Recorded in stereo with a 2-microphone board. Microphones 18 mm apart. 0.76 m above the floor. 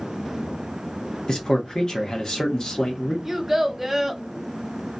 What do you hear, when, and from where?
1.3 s a man speaking: 40° left (ahead or behind), 1.1 m
3.2 s a child speaking: 10° right (ahead or behind), 0.8 m